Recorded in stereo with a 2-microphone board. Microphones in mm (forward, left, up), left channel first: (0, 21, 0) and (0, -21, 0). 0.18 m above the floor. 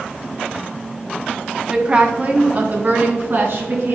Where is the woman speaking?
20° right (ahead or behind), 1.3 m; by 4.0 s 60° right (ahead or behind), 2 m.